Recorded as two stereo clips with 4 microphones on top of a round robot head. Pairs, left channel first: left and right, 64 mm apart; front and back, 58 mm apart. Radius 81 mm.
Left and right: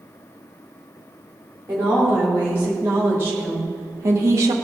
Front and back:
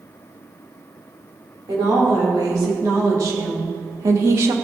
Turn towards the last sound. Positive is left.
turn(degrees=-130)